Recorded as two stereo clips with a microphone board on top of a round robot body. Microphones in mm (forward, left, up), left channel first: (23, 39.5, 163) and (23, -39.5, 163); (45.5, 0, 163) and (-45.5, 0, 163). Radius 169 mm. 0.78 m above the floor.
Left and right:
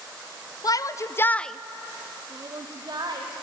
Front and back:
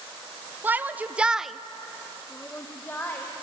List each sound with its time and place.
0.6 s a shout: 115° left, 0.8 m; by 3.3 s 65° right, 1.2 m